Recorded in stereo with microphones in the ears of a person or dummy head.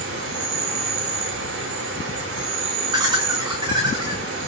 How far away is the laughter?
About 1.3 m.